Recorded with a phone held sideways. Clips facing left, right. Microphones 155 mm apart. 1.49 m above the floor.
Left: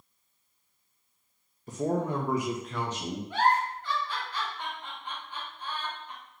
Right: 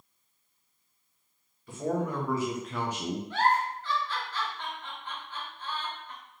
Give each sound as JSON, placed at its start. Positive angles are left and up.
{"t": 1.7, "sound": "a man speaking", "side_deg": 40, "distance_m": 0.8}
{"t": 3.3, "sound": "a giggle", "side_deg": 15, "distance_m": 1.3}